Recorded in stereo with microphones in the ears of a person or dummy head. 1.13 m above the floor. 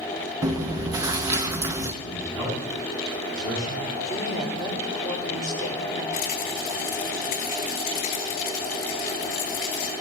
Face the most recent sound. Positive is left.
turn(degrees=40)  # may be behind; listen again after turning